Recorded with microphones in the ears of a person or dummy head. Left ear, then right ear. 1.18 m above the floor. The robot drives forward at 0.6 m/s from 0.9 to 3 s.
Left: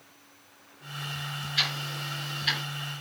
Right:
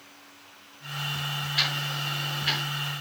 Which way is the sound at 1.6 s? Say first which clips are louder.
Right 1 dB; 10° left (ahead or behind).